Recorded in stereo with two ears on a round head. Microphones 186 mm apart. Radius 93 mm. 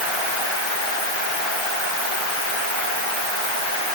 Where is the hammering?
I don't hear hammering.